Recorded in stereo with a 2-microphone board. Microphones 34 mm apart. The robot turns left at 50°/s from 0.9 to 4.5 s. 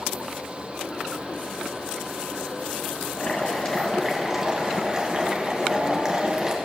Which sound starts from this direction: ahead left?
Boiling, at 3.1 s.